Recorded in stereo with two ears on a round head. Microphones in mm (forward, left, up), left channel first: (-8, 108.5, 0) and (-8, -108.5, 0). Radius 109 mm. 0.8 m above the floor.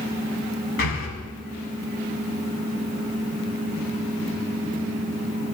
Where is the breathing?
55° left (ahead or behind), 1.7 m.